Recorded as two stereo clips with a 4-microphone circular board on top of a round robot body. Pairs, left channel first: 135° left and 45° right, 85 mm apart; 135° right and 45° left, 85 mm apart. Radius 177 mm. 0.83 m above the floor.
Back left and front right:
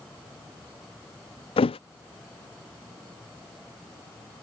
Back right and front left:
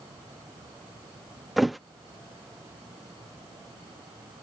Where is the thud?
135° left.